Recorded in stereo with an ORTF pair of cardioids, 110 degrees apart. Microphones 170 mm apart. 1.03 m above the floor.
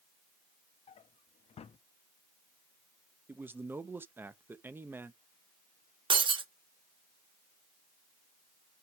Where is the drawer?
35° left, 0.7 m.